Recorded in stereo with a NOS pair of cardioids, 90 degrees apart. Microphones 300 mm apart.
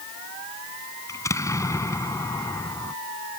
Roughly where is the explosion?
Ahead.